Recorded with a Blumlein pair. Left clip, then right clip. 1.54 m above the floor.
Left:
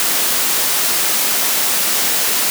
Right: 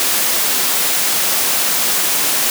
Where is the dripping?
I don't hear dripping.